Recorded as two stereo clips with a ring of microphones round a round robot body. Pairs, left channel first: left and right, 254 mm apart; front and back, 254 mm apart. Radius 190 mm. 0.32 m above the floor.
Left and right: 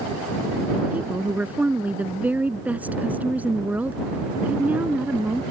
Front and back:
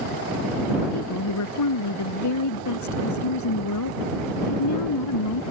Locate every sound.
0.9 s a woman speaking: 5° right